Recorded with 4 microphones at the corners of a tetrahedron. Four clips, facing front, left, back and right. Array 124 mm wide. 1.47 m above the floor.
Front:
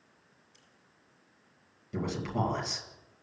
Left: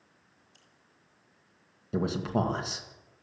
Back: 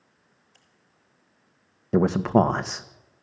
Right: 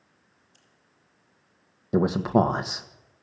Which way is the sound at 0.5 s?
170° left.